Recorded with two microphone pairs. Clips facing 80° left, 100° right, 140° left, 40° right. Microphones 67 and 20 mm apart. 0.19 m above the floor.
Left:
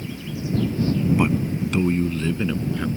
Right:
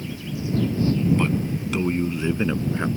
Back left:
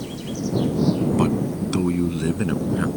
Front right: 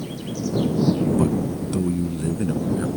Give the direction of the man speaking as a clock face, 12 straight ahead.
7 o'clock.